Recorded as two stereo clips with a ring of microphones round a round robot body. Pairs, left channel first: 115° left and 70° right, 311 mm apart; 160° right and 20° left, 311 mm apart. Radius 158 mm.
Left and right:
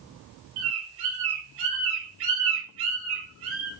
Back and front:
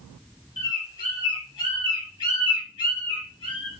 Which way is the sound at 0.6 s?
80° right.